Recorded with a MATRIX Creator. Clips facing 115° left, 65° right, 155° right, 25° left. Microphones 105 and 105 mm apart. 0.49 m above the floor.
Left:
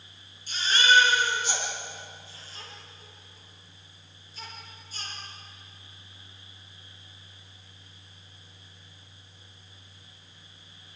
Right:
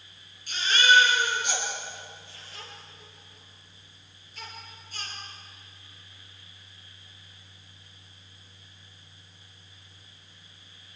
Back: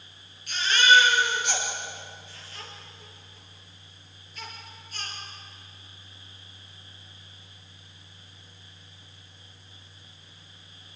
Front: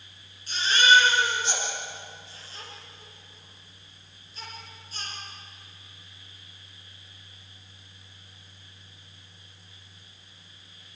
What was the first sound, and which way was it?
A baby crying, 40° right.